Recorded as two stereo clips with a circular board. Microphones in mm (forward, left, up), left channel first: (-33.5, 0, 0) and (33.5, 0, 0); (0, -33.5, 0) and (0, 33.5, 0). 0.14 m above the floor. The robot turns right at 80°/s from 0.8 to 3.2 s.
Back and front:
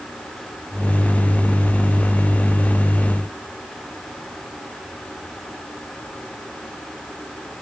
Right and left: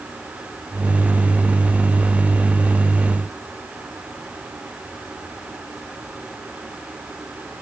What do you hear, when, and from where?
Only background noise.